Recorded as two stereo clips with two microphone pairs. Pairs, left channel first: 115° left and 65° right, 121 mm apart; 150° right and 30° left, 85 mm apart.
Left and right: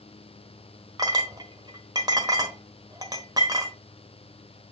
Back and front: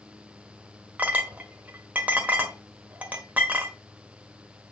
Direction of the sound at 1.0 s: 30° right.